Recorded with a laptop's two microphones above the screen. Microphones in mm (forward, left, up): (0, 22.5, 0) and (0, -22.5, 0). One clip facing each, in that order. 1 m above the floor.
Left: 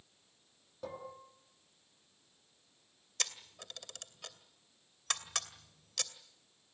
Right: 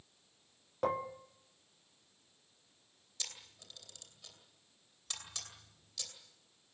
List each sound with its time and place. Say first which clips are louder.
0.8 s dishes clattering: right 10 dB; 55° right (ahead or behind), 1.3 m
3.2 s a camera shutter: left 7 dB; 70° left (ahead or behind), 2.5 m